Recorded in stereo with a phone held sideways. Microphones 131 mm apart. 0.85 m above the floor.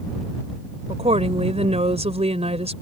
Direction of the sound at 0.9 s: 55° right (ahead or behind).